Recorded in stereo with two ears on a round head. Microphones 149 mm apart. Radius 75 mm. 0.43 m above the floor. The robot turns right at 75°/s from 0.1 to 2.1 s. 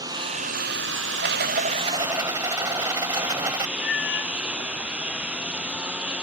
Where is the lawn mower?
155° right; by 6.2 s 5° right.